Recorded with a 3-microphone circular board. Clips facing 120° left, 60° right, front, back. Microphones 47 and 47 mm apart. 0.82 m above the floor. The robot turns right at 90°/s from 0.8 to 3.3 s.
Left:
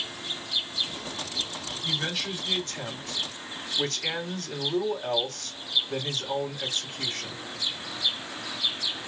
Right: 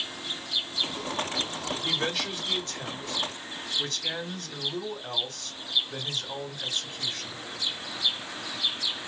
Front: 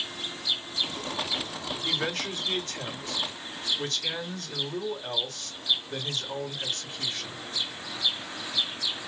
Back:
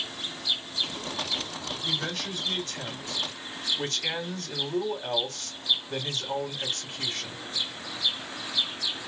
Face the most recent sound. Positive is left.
turn(degrees=125)